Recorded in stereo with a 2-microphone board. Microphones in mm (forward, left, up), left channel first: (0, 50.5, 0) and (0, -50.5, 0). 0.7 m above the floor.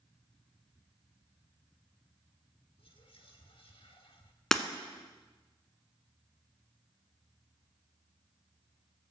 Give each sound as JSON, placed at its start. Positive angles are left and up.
{"t": 2.8, "sound": "whispering", "side_deg": 65, "distance_m": 1.4}
{"t": 4.5, "sound": "breaking glass", "side_deg": 5, "distance_m": 0.6}